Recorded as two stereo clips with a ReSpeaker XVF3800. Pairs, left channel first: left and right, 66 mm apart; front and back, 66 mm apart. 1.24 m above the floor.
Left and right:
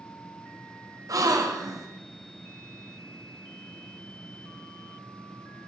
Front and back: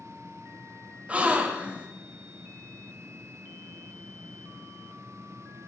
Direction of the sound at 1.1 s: 110° right.